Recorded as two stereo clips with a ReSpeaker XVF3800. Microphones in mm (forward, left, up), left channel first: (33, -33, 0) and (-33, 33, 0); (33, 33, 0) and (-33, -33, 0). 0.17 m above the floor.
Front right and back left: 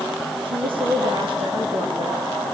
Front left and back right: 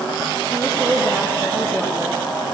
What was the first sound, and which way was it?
A woman speaking, 155° left.